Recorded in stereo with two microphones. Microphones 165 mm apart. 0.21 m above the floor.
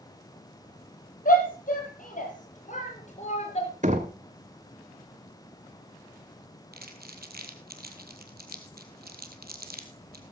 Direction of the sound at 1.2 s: 60° left (ahead or behind).